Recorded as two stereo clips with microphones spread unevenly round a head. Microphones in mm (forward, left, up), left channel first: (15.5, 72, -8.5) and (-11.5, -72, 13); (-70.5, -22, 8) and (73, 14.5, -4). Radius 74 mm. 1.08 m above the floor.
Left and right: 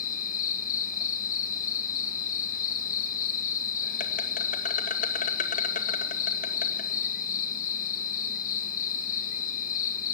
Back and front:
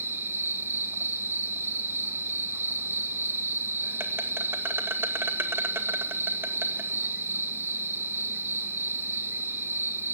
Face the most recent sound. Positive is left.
turn(degrees=85)